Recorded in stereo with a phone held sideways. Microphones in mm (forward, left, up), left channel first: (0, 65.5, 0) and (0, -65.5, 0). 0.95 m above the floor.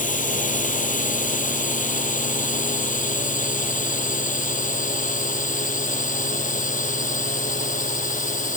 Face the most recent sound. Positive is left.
turn(degrees=85)